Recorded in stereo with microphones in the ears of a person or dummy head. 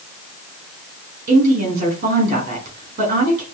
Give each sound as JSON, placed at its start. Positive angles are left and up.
{"t": 1.3, "sound": "a woman speaking", "side_deg": -45, "distance_m": 6.0}